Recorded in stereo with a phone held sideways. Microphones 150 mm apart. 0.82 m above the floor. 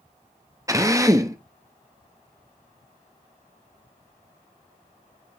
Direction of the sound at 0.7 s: 20° right (ahead or behind).